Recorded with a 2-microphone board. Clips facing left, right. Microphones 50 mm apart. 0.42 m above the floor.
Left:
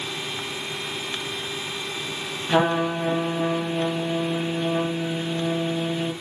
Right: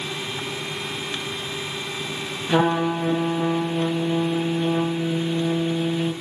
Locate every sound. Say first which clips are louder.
2.5 s a trumpet: right 1 dB; 5° left (ahead or behind), 0.6 m